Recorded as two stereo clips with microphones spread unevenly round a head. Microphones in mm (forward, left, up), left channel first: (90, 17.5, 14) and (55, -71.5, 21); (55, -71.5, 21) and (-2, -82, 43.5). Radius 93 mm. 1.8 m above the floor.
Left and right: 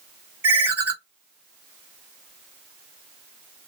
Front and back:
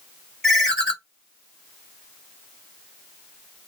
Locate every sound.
0.4 s a ringtone: 125° right, 1.2 m